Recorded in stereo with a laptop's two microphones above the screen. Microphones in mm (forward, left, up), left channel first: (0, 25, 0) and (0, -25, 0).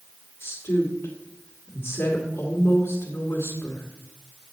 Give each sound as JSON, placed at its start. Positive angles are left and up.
{"t": 0.4, "sound": "a woman speaking", "side_deg": 55, "distance_m": 2.5}